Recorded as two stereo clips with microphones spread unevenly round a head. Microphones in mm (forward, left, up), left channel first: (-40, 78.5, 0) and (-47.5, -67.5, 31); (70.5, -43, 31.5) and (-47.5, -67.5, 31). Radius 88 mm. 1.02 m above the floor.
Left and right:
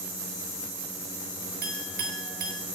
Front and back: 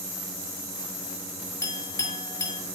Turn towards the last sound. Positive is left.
turn(degrees=-50)